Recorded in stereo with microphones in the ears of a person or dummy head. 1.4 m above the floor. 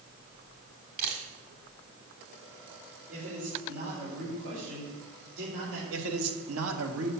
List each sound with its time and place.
1.0 s a camera shutter: 45° right (ahead or behind), 1.7 m
3.1 s a man speaking: 80° right, 4 m
5.9 s a man speaking: 80° right, 1.6 m